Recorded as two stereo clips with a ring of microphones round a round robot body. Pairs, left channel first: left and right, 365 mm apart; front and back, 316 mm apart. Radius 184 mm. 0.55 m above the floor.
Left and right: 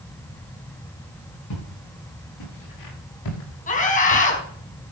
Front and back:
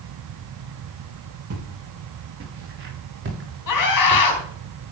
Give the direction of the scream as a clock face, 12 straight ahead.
11 o'clock.